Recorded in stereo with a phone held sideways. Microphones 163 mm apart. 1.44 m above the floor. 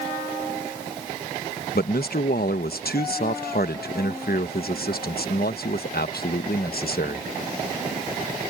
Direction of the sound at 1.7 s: 70° left (ahead or behind).